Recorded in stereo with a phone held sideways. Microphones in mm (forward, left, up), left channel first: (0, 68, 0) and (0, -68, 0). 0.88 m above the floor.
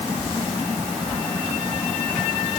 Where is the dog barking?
No dog barking in this recording.